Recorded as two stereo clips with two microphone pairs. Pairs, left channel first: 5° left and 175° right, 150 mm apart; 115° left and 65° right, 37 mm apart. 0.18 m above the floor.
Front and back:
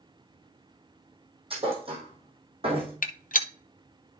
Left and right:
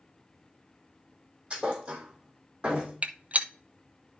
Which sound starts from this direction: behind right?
A thud, at 1.5 s.